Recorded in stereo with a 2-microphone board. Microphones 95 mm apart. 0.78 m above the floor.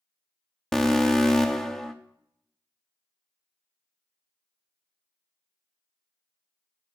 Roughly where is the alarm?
Centre.